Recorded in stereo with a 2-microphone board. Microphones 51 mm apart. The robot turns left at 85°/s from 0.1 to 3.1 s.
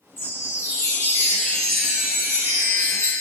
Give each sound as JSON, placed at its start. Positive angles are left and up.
{"t": 0.2, "sound": "a chime", "azimuth_deg": 135, "distance_m": 2.0}